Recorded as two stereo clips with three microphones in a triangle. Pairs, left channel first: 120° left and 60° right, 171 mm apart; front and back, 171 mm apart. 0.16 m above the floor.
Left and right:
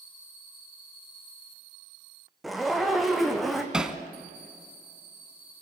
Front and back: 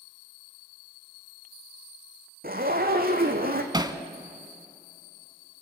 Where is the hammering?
140° right, 1.0 m.